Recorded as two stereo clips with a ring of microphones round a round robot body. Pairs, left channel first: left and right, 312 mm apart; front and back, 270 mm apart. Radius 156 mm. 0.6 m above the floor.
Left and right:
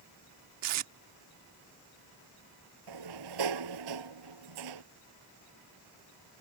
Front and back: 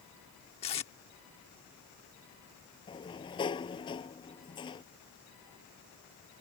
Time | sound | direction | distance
0.6 | tape being pulled | 70° right | ?
2.9 | a sliding door | 75° right | ?